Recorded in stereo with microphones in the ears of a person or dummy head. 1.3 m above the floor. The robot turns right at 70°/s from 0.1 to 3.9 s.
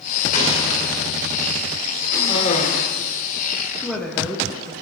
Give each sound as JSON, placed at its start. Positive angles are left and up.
{"t": 0.3, "sound": "an explosion", "azimuth_deg": 135, "distance_m": 3.0}
{"t": 2.1, "sound": "a cough", "azimuth_deg": 10, "distance_m": 3.5}
{"t": 3.8, "sound": "a woman speaking", "side_deg": 10, "distance_m": 1.5}